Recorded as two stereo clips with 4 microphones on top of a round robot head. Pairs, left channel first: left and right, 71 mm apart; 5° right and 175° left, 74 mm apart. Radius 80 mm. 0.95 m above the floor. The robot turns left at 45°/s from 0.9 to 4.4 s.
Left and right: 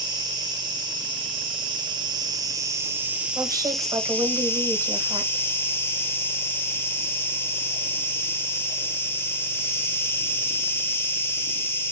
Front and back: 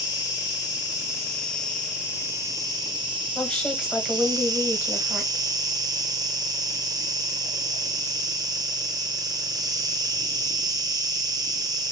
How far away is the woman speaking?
About 1.3 m.